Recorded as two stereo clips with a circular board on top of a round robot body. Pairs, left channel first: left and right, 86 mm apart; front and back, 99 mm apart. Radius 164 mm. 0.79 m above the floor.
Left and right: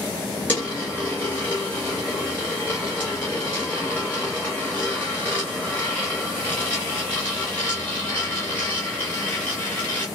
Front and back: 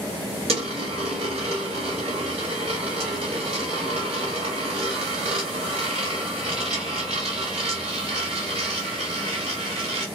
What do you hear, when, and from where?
0.5 s a dropped coin: 165° left, 0.5 m